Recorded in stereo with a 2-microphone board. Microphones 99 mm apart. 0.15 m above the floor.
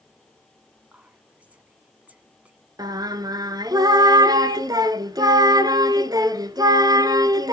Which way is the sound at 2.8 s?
40° right (ahead or behind).